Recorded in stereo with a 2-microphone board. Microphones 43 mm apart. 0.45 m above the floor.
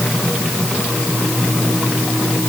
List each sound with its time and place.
Only background noise.